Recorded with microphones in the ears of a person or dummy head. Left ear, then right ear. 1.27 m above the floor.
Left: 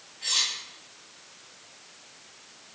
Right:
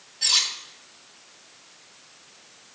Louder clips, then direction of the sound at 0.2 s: Right 5 dB; 75° right (ahead or behind).